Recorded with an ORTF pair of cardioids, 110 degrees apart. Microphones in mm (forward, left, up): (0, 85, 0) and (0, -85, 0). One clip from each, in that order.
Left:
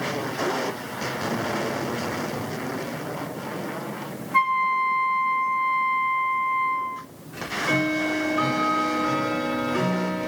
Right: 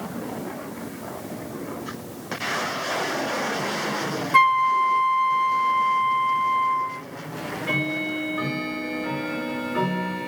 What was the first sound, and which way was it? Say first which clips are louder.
A flute: right 3 dB; 45° right.